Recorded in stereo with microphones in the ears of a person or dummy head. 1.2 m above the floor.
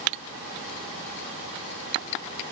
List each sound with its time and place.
Only background noise.